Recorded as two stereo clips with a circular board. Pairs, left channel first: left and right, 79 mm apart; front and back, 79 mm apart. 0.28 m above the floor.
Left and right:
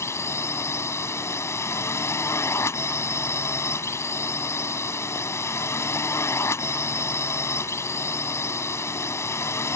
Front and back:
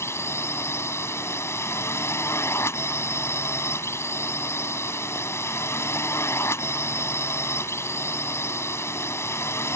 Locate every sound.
0.0 s a drone: 45° left